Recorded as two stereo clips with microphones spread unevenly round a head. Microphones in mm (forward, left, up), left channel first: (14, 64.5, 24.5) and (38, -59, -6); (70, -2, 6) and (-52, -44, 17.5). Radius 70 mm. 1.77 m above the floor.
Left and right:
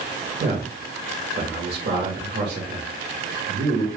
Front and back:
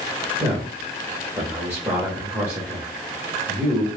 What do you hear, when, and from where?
0.4 s a man speaking: 85° right, 1.2 m